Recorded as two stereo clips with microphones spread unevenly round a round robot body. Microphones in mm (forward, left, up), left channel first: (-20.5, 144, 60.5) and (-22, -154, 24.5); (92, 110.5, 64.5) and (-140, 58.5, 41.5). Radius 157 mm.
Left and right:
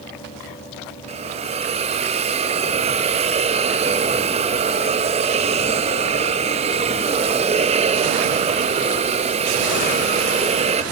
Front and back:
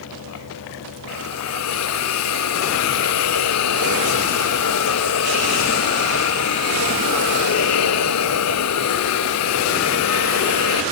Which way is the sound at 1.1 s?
20° right.